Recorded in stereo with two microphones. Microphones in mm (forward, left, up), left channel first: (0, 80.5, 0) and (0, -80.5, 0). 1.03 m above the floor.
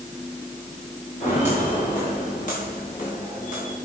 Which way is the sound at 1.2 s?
50° left (ahead or behind).